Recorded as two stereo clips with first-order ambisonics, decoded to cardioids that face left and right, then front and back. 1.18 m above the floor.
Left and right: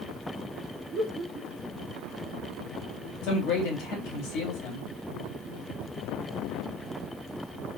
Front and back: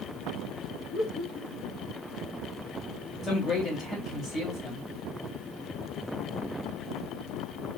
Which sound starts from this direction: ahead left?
A man speaking, at 3.2 s.